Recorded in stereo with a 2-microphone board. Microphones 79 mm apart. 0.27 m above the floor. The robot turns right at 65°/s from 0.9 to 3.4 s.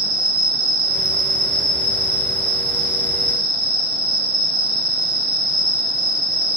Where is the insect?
95° right, 1.1 m; by 6.6 s 70° left, 1.1 m.